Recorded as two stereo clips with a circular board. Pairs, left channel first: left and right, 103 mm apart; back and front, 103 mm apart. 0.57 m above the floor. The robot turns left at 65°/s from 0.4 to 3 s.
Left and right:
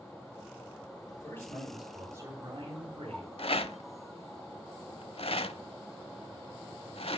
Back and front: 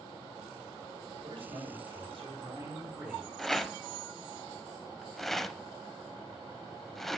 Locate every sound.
1.1 s a man speaking: 40° left, 5 m; by 3.3 s 85° right, 5 m
3.4 s a rattle: 95° left, 0.6 m